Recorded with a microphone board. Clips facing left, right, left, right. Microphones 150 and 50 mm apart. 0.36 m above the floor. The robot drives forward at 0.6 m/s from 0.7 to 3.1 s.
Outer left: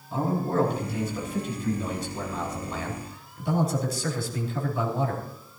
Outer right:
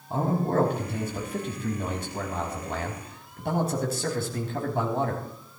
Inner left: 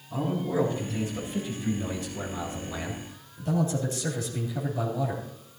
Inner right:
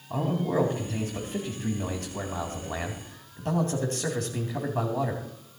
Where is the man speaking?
60° right (ahead or behind), 3 m.